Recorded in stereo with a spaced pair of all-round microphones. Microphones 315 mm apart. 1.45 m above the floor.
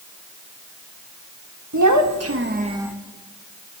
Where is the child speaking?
65° right (ahead or behind), 1.3 m; by 2.9 s 5° right (ahead or behind), 1.1 m.